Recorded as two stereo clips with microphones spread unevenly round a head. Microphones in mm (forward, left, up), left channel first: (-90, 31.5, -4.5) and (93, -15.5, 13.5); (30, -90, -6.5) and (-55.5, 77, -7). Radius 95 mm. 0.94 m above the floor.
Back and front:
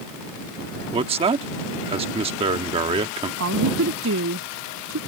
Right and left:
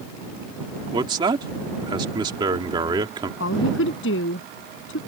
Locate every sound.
0.9 s a man speaking: 50° left
3.4 s a woman speaking: 35° right